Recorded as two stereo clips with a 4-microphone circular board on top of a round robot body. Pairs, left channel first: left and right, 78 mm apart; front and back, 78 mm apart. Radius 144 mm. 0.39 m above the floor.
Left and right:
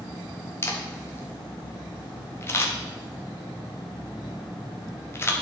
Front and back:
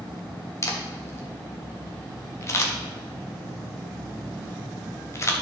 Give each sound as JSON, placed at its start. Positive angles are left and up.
{"t": 0.6, "sound": "a camera shutter", "azimuth_deg": 40, "distance_m": 1.5}